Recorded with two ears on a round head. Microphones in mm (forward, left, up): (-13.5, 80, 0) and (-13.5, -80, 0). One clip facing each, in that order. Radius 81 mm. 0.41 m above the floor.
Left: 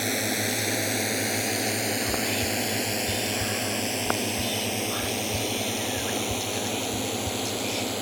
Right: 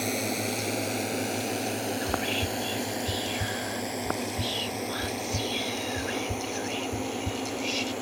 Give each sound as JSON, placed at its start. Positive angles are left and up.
{"t": 0.0, "sound": "a drone", "side_deg": 5}
{"t": 2.0, "sound": "whispering", "side_deg": -30}